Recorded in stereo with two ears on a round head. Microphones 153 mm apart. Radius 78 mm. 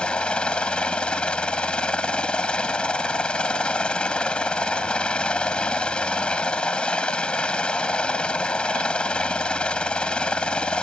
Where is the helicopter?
5° left (ahead or behind).